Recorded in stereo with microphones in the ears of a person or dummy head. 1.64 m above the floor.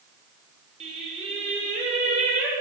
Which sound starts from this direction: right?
Singing, at 0.8 s.